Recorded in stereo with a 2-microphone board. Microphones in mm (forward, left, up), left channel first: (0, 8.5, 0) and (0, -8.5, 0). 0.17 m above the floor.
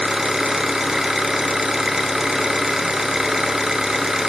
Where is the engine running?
35° right (ahead or behind), 1.1 m.